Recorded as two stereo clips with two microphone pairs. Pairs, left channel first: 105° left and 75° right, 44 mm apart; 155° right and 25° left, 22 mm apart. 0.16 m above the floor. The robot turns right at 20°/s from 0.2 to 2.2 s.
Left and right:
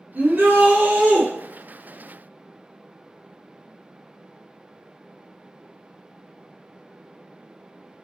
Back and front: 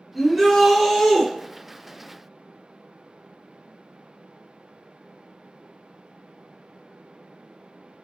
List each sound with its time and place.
0.1 s a shout: 55° right, 1.4 m; by 1.3 s 35° right, 1.4 m